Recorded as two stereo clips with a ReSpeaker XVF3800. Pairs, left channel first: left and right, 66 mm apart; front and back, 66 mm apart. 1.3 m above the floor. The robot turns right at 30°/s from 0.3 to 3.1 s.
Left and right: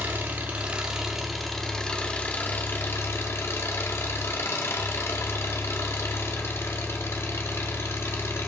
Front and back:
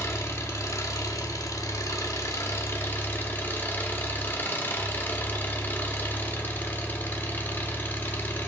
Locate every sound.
0.0 s an engine running: 30° right, 1.2 m; by 8.5 s 55° left, 1.2 m